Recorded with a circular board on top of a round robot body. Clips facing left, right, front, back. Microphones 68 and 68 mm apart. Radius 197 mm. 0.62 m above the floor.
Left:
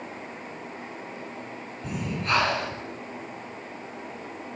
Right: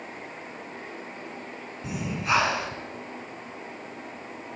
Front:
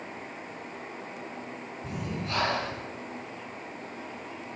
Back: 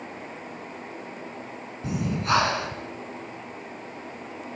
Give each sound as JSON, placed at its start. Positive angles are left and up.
{"t": 1.8, "sound": "breathing", "azimuth_deg": -170, "distance_m": 5.0}